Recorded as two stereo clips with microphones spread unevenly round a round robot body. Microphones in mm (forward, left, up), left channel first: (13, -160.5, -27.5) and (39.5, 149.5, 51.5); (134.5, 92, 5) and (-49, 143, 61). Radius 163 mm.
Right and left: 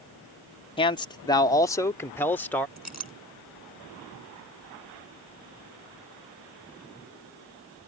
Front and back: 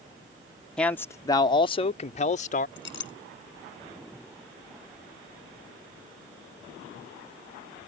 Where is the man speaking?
70° right; by 2.7 s 20° right.